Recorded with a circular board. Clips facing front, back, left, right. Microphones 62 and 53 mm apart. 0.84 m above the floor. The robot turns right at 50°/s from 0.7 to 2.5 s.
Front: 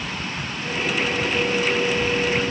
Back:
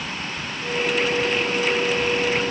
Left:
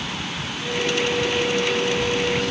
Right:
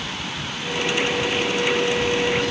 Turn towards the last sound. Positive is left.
No sound to turn to.